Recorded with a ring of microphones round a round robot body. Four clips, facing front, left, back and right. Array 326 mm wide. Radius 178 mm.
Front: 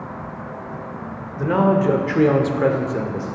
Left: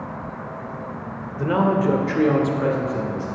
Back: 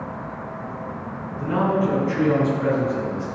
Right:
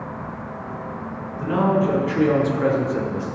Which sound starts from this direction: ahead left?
A man speaking, at 1.4 s.